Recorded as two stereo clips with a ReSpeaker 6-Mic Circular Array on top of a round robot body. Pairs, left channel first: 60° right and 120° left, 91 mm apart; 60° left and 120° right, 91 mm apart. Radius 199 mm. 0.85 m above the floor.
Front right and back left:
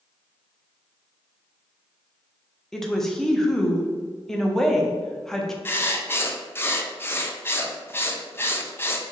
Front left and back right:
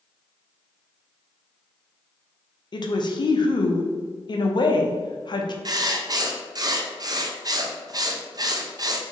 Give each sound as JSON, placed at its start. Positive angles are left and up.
{"t": 2.7, "sound": "a woman speaking", "azimuth_deg": 25, "distance_m": 0.7}
{"t": 5.7, "sound": "writing", "azimuth_deg": -110, "distance_m": 0.7}